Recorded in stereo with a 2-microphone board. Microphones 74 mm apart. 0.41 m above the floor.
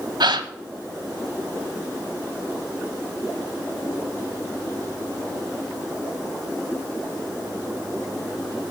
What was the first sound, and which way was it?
A gasp, 80° right.